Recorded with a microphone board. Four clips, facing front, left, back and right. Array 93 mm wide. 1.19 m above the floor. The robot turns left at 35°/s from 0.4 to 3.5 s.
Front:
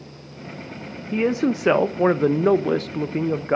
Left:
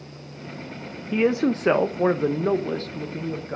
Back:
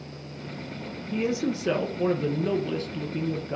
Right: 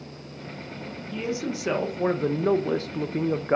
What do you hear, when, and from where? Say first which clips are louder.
1.1 s a man speaking: left 9 dB, front 6 dB; 50° left, 0.8 m; by 3.6 s 30° right, 0.8 m